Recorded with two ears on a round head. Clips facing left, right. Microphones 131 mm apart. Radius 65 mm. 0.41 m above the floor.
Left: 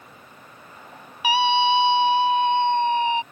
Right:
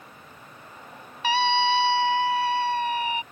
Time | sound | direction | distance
1.2 | a scream | 10° left (ahead or behind) | ?